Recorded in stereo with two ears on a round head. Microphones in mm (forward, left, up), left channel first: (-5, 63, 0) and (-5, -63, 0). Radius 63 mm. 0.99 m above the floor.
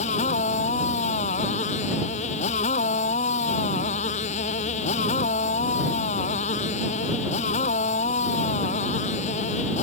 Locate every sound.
0.0 s a motorcycle: 50° left (ahead or behind)